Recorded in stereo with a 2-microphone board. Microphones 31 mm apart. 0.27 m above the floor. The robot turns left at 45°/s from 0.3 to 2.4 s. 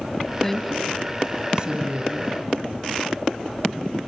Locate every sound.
0.4 s a woman speaking: 15° left, 2 m; by 2.4 s 75° right, 2 m